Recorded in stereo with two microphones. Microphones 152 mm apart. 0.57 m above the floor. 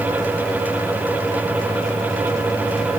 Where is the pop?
No pop in this recording.